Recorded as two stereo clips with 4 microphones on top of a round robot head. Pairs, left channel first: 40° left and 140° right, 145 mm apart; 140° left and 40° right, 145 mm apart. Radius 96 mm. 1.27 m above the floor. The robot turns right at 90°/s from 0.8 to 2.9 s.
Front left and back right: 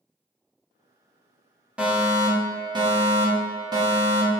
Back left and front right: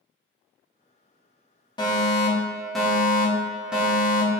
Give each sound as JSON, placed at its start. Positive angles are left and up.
{"t": 1.8, "sound": "a fire alarm", "azimuth_deg": 140, "distance_m": 1.1}